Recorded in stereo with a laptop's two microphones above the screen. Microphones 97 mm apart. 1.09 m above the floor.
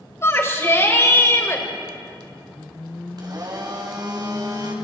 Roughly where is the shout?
Left.